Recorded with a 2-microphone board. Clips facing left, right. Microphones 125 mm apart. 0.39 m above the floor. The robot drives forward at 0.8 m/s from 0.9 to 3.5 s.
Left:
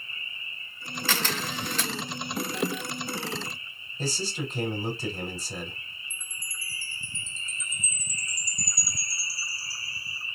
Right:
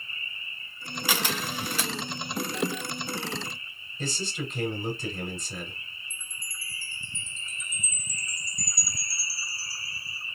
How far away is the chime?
About 1.2 m.